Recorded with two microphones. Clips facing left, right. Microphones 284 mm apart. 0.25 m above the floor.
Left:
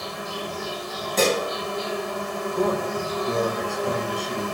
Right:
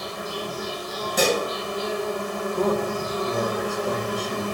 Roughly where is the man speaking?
Centre.